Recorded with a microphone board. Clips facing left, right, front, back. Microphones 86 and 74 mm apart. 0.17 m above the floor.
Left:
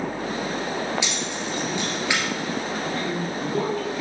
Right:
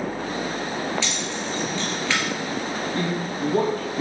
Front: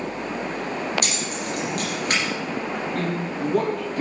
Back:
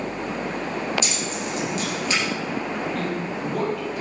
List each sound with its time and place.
1.0 s keys jangling: 20° left, 2.5 m
3.0 s a man speaking: 40° right, 3.5 m